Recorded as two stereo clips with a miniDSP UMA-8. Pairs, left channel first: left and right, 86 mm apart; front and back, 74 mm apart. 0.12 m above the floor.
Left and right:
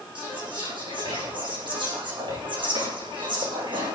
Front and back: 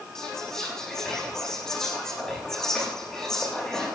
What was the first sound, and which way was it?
Whispering, 80° right.